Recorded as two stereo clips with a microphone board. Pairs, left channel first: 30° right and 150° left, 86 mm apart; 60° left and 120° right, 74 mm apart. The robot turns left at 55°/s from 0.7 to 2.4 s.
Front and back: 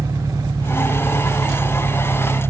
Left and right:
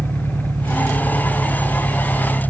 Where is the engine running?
145° right; by 2.5 s 120° left.